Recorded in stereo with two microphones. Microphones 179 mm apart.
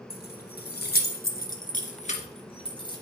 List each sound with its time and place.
0.1 s keys jangling: 60° left (ahead or behind), 2.5 m; by 3.0 s 25° left (ahead or behind), 2.5 m